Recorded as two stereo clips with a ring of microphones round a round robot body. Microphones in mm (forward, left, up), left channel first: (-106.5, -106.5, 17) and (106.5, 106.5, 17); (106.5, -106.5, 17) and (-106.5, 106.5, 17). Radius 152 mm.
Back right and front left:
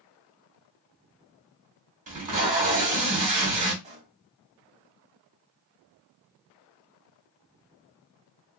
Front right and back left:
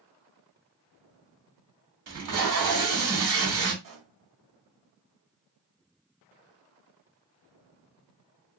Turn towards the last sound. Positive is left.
turn(degrees=115)